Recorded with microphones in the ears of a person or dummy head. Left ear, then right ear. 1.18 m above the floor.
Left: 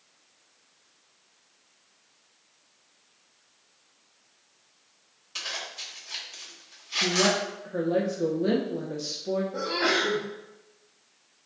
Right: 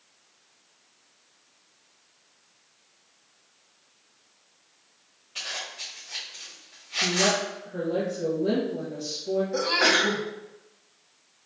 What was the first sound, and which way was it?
A zipper, 50° left (ahead or behind).